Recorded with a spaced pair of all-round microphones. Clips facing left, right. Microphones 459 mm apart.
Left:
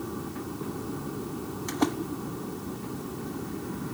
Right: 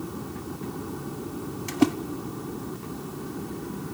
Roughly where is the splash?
Right.